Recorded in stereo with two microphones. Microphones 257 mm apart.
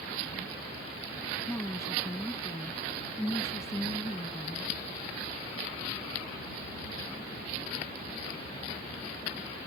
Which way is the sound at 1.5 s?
10° left (ahead or behind).